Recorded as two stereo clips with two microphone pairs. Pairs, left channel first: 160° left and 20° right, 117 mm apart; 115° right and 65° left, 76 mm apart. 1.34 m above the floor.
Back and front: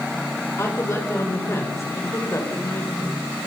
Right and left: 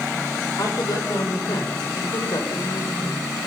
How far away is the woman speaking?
About 6.5 m.